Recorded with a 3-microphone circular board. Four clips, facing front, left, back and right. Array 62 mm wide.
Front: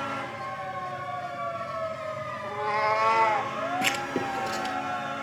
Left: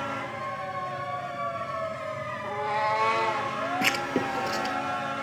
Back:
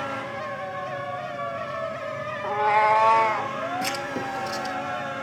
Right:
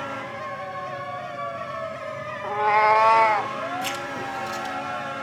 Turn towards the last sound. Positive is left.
turn(degrees=65)